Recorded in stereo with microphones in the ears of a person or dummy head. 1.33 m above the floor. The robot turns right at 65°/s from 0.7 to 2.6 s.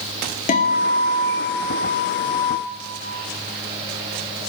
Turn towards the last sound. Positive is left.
turn(degrees=-100)